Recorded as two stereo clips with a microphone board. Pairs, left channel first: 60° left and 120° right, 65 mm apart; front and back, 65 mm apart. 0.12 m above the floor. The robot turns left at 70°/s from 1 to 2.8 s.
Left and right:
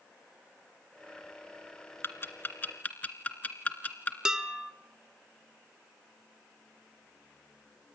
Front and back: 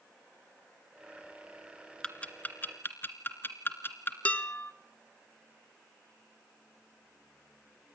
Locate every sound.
2.0 s ticking: 70° left, 2 m; by 4.2 s 15° left, 2 m
4.2 s dishes clattering: 50° right, 0.9 m